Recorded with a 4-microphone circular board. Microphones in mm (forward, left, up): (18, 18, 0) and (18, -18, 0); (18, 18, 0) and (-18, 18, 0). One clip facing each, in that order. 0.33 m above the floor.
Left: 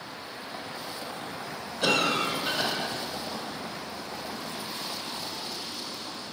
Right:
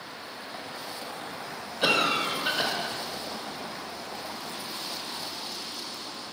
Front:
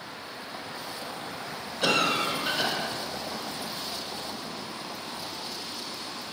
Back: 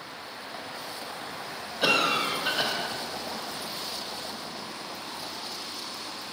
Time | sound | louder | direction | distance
1.8 | a cough | right 1 dB, back 1 dB | 125° right | 1.0 m